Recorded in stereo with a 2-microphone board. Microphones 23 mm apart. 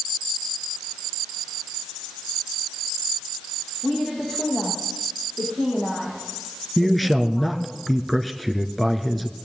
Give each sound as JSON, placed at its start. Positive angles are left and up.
{"t": 3.8, "sound": "a woman speaking", "side_deg": 55, "distance_m": 5.0}
{"t": 6.8, "sound": "a man speaking", "side_deg": 5, "distance_m": 1.1}